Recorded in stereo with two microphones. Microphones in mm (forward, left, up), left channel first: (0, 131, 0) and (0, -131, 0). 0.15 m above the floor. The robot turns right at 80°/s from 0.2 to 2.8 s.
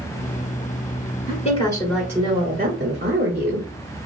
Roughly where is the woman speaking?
Behind left.